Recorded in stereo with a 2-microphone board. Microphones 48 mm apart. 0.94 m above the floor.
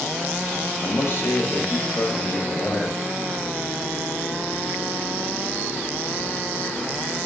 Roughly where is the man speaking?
Left.